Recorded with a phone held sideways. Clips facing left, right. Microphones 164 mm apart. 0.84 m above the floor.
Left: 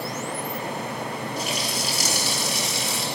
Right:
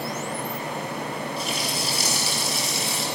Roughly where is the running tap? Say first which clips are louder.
Even; left.